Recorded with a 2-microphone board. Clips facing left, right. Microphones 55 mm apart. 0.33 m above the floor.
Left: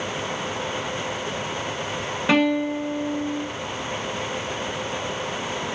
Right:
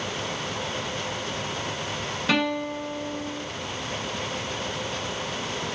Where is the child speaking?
No child speaking in this recording.